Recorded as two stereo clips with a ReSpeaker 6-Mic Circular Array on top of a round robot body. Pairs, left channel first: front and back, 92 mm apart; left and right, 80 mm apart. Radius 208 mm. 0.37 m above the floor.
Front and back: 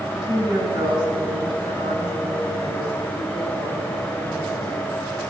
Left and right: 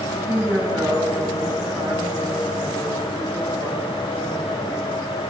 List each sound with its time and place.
0.1 s a woman speaking: 155° right, 5.5 m